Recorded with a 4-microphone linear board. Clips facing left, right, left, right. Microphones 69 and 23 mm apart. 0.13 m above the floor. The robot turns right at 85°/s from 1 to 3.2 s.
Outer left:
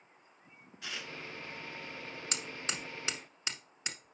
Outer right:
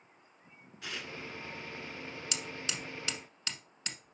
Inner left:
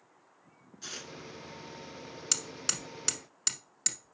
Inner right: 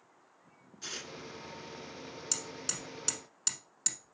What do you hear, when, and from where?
0.8 s tearing paper: centre (ahead or behind), 1.2 m; by 1.1 s 5° left (ahead or behind), 1.2 m
2.3 s hammering: 35° left (ahead or behind), 1.0 m; by 4.1 s 15° left (ahead or behind), 1.0 m